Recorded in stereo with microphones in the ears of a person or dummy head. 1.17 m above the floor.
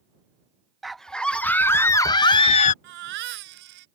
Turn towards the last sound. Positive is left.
turn(degrees=-60)  # may be behind; listen again after turning